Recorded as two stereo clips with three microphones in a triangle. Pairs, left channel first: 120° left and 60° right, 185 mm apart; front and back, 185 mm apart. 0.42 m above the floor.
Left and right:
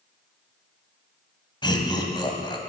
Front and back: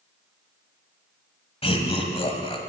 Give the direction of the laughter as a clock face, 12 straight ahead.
10 o'clock.